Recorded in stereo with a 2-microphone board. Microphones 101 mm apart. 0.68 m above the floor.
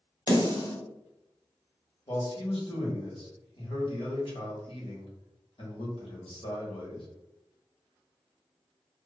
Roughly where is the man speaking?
Left.